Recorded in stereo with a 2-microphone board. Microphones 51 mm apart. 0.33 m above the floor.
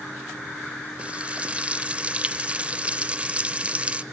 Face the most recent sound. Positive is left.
turn(degrees=-25)  # may be behind; listen again after turning